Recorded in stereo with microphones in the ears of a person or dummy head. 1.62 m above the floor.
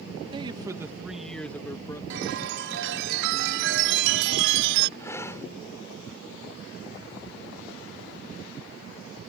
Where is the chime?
75° right (ahead or behind).